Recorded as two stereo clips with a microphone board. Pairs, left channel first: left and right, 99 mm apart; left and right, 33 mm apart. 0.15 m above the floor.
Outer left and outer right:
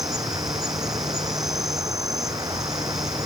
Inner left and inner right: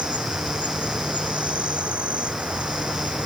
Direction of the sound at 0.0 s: 40° right (ahead or behind).